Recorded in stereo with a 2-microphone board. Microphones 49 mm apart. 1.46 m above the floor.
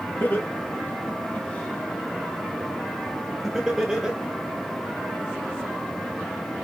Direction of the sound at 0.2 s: 45° left (ahead or behind).